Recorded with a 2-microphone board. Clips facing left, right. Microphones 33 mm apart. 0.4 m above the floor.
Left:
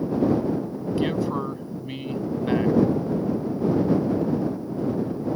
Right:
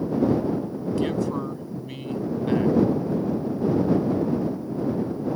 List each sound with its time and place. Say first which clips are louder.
1.0 s a man speaking: left 1 dB; 15° left (ahead or behind)